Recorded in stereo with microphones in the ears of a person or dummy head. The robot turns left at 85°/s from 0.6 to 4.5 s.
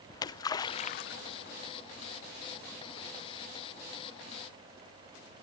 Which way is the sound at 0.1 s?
20° left (ahead or behind).